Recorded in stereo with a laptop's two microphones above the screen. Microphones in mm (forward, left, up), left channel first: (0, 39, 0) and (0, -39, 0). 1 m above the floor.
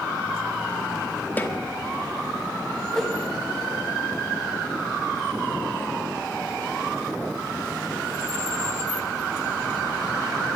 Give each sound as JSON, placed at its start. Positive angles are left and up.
{"t": 1.4, "sound": "a snare drum", "side_deg": 20, "distance_m": 1.1}
{"t": 2.9, "sound": "a whoosh", "side_deg": 5, "distance_m": 1.2}